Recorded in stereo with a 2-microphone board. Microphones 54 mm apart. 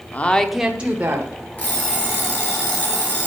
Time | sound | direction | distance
0.1 | a woman speaking | 35° left (ahead or behind) | 0.8 m
1.6 | an alarm clock | 30° left (ahead or behind) | 3.5 m